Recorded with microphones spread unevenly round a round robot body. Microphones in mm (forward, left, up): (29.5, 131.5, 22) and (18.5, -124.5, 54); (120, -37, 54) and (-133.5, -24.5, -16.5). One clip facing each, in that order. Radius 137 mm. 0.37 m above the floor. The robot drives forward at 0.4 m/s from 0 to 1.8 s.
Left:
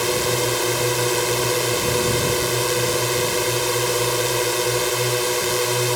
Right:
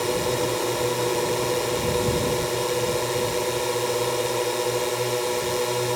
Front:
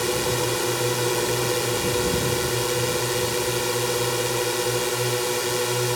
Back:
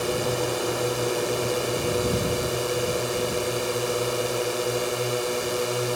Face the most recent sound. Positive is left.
turn(degrees=55)